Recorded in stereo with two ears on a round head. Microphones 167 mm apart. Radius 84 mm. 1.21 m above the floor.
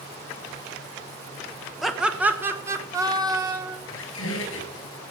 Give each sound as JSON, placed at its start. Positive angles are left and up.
{"t": 1.8, "sound": "laughter", "side_deg": 0, "distance_m": 1.3}
{"t": 3.9, "sound": "a squeak", "side_deg": 85, "distance_m": 6.0}